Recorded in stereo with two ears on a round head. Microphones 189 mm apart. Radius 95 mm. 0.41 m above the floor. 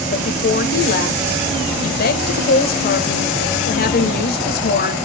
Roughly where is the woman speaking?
Left.